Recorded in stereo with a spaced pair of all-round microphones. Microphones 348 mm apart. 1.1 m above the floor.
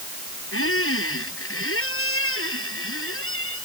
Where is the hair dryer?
No hair dryer in this recording.